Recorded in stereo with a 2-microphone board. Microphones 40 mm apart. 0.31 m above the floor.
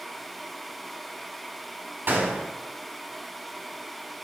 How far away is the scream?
No scream in this recording.